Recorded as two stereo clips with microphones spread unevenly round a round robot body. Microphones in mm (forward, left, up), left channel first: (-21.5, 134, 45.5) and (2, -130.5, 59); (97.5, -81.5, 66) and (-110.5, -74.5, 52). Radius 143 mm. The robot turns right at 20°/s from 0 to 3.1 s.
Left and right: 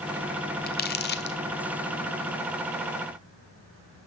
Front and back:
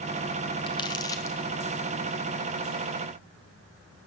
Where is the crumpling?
60° left, 0.9 m; by 1.4 s 75° left, 0.9 m.